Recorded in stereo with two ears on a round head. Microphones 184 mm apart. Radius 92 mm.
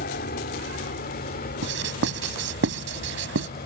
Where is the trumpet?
No trumpet in this recording.